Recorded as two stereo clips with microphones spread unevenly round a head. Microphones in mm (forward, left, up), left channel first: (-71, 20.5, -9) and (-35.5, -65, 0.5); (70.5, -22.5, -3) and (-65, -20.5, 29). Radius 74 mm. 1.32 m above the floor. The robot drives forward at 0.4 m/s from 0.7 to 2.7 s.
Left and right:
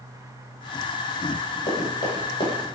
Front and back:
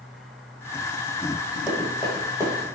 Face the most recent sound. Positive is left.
turn(degrees=135)